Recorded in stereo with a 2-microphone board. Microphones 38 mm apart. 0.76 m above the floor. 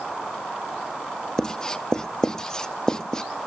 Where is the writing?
20° left (ahead or behind), 0.5 m.